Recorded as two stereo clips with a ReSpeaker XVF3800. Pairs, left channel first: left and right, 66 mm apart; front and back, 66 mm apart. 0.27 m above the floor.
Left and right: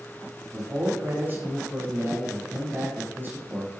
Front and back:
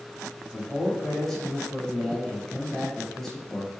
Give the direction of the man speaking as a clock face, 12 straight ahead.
3 o'clock.